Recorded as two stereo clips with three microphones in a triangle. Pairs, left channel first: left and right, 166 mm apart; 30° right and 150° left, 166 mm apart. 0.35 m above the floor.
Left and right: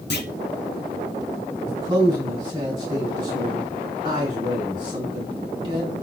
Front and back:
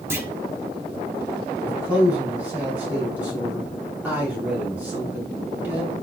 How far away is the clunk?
About 0.6 m.